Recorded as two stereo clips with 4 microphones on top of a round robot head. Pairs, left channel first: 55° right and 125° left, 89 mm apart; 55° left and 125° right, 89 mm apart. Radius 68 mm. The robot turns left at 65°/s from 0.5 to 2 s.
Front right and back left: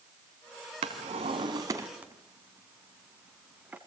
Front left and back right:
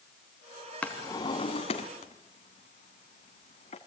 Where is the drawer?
130° left, 1.8 m; by 3.8 s 55° left, 1.8 m.